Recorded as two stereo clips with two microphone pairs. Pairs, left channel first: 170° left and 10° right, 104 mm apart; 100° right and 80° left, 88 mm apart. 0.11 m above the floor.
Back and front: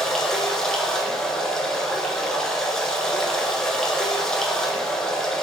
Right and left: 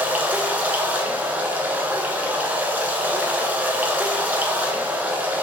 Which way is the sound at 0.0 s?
95° left.